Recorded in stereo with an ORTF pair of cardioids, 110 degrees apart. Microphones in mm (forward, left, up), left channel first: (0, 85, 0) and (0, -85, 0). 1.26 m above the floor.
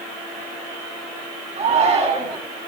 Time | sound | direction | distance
1.6 | a shout | 40° right | 8.5 m